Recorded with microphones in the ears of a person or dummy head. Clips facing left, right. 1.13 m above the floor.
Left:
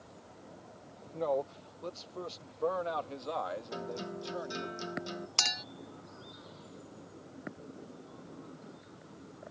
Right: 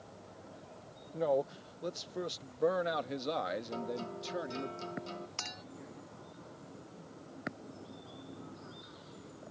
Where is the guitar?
15° left (ahead or behind).